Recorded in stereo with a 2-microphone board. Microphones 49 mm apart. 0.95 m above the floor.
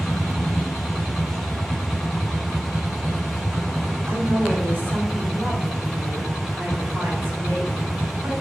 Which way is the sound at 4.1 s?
40° right (ahead or behind).